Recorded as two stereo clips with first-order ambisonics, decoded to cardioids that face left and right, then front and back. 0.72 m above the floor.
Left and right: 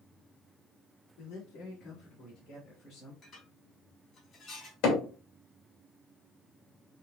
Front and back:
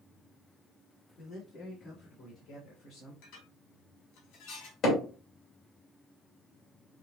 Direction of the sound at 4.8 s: 60° left.